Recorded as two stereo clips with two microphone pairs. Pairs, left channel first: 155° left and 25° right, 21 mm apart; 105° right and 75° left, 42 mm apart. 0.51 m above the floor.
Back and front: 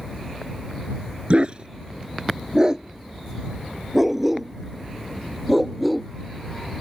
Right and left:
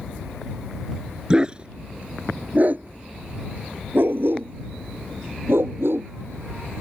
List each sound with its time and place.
1.3 s a dog barking: 10° left; by 6.1 s 60° left